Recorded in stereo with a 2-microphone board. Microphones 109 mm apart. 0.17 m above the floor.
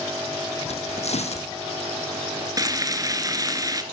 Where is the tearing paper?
70° left (ahead or behind), 1.1 m.